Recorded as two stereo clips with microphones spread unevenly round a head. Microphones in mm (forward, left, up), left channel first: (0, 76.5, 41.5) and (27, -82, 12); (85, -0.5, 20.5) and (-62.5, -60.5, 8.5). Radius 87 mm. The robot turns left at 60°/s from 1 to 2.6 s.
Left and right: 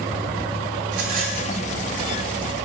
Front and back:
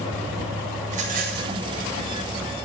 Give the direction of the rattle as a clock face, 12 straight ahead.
4 o'clock.